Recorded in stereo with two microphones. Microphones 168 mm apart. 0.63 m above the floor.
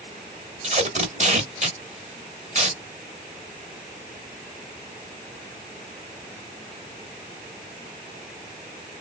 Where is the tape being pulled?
45° right (ahead or behind), 1.1 m.